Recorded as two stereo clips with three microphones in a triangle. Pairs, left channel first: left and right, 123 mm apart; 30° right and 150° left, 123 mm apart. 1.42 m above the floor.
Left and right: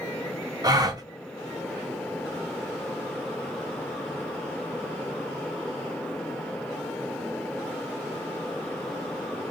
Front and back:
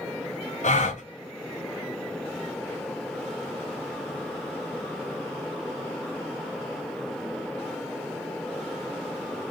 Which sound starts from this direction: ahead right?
A gasp, at 0.6 s.